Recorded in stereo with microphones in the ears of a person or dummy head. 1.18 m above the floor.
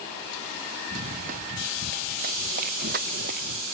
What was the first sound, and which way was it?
Running footsteps, 50° right (ahead or behind).